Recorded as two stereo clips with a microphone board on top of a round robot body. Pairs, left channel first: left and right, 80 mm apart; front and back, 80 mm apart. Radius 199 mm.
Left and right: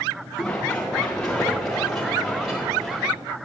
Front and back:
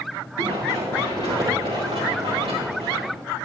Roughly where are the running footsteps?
Behind.